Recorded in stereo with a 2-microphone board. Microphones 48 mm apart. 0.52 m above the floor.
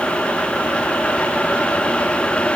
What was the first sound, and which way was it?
Only background noise.